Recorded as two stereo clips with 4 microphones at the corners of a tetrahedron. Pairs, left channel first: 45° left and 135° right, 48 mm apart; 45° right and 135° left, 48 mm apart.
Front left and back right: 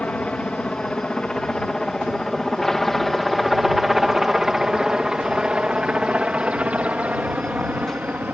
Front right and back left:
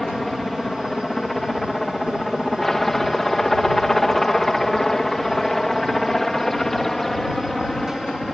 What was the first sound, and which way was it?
A helicopter, 35° left.